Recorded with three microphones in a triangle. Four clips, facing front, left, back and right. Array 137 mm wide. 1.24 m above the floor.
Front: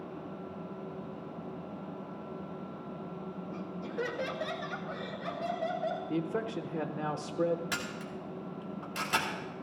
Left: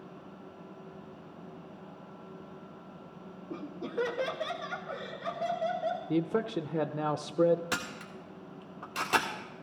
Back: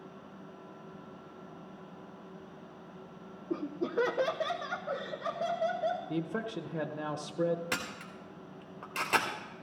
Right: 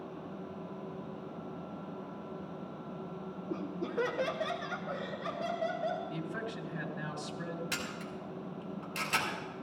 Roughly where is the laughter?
Behind.